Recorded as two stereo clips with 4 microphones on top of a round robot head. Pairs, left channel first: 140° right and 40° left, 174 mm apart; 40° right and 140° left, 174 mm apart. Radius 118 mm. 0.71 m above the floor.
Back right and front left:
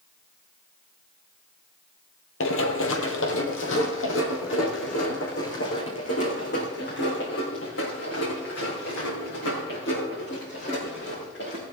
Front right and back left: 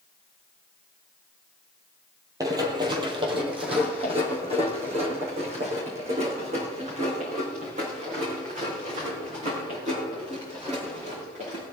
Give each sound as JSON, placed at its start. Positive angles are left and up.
{"t": 2.4, "sound": "running footsteps", "azimuth_deg": -145, "distance_m": 1.3}